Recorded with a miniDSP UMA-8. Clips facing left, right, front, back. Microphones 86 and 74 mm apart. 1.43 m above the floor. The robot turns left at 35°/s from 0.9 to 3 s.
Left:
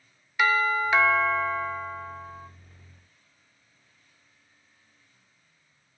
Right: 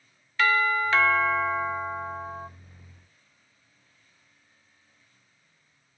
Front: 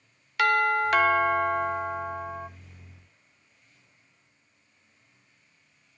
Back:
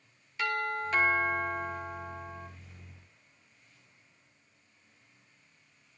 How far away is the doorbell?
About 0.5 m.